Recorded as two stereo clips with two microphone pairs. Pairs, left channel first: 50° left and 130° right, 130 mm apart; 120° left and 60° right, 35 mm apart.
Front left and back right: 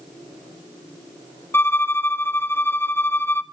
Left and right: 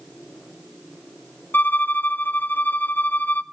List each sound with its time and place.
1.5 s a violin: 120° left, 0.5 m